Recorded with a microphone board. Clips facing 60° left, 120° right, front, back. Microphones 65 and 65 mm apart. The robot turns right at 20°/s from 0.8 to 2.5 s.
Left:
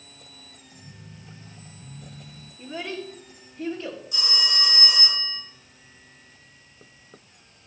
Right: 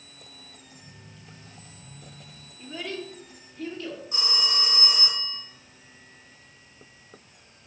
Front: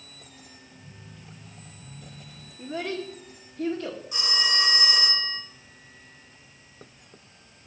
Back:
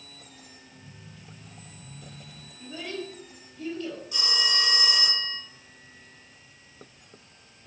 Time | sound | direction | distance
2.6 | a child speaking | 15° right | 1.5 m
4.1 | a phone ringing | 70° right | 5 m